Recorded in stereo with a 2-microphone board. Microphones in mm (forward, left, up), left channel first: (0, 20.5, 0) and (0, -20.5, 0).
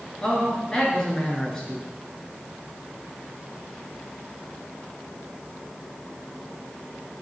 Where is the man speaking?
20° left (ahead or behind), 3.5 m.